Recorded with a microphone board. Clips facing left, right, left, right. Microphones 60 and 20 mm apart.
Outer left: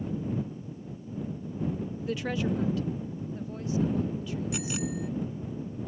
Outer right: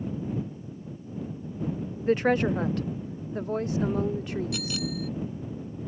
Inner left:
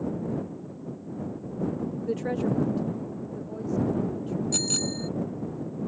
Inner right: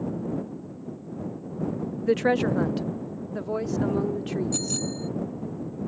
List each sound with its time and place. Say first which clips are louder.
2.1 s a woman speaking: outer right 8 dB, inner right 7 dB; 45° right (ahead or behind); by 4.8 s 70° right (ahead or behind)
4.5 s a bicycle bell: even, inner left 1 dB; 20° left (ahead or behind)